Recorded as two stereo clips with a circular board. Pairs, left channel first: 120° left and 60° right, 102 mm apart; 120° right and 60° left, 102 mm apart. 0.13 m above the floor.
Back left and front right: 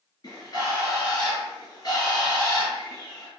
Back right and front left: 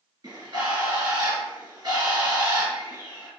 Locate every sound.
0.2 s a bird: 95° left, 1.5 m